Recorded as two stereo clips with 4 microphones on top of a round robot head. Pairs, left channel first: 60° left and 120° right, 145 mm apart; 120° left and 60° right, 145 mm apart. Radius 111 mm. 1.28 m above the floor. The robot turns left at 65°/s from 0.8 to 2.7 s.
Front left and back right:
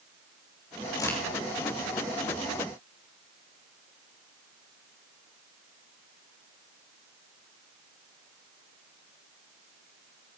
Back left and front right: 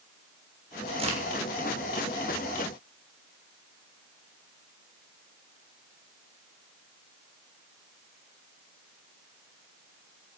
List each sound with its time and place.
1.0 s a crack: 5° right, 6 m; by 1.2 s 20° right, 6 m